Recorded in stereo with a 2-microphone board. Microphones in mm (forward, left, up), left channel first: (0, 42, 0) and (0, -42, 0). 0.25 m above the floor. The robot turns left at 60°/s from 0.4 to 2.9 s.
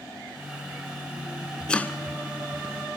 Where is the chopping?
10° left (ahead or behind), 0.6 m; by 2.0 s 30° left (ahead or behind), 0.6 m.